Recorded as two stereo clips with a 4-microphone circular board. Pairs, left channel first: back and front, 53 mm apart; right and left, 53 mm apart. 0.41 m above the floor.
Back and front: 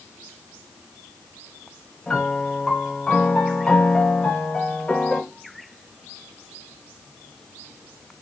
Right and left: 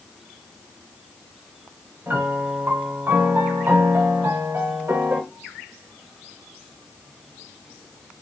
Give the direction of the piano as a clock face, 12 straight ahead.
8 o'clock.